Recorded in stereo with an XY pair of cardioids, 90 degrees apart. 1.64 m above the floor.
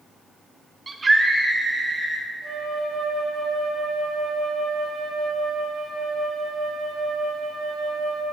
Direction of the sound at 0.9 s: 35° right.